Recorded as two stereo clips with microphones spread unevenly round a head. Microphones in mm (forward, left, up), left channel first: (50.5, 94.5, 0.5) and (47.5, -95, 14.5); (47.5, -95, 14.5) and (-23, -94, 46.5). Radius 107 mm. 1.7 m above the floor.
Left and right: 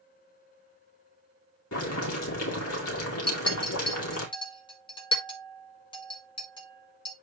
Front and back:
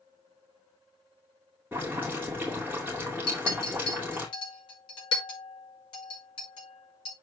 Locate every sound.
1.7 s boiling: 105° left, 2.5 m
3.3 s a clink: 25° left, 4 m